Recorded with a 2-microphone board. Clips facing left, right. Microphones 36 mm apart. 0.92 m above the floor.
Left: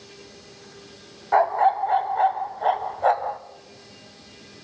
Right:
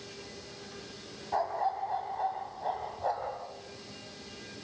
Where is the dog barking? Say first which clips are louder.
Left 12 dB; 70° left (ahead or behind), 1.5 m.